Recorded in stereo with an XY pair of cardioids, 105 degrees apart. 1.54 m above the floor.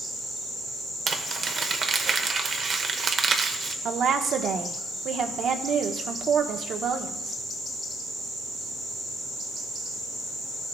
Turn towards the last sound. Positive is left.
turn(degrees=-60)